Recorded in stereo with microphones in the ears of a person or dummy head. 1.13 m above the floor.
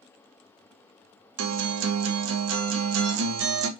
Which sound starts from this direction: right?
A guitar, at 1.4 s.